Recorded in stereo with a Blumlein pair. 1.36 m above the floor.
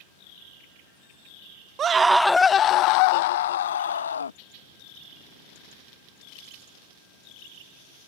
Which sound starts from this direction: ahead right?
A scream, at 1.8 s.